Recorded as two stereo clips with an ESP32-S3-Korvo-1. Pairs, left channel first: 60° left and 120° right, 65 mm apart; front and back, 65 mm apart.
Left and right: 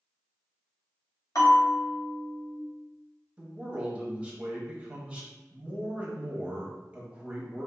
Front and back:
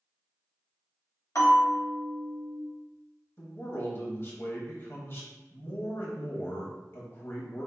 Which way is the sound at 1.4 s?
35° left.